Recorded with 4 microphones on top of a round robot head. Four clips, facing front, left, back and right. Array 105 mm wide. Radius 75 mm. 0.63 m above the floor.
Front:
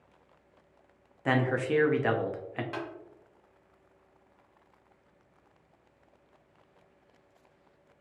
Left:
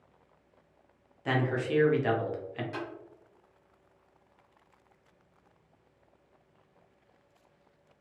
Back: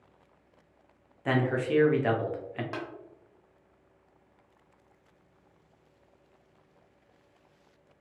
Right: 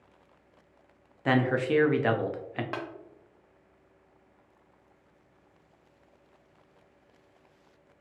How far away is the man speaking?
About 0.6 m.